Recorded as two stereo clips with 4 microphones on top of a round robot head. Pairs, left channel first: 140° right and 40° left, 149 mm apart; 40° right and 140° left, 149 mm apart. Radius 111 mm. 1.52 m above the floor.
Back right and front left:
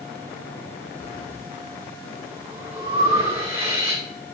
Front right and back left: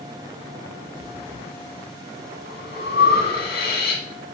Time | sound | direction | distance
1.0 | breathing | 30° right | 1.1 m